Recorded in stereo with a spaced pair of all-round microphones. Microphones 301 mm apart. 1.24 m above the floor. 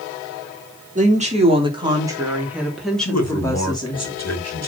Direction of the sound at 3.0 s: 55° left (ahead or behind).